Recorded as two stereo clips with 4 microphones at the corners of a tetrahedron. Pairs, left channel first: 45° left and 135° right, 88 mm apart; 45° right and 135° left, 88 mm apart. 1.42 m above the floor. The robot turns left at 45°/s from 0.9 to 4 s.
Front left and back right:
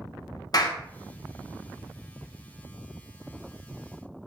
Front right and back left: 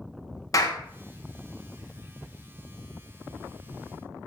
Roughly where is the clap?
Ahead.